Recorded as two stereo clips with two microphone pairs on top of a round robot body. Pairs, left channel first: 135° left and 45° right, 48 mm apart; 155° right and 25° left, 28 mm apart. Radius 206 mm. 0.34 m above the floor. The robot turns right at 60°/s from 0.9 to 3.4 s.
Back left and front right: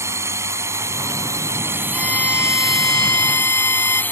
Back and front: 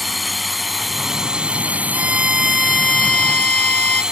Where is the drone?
65° right; by 4.1 s 85° left.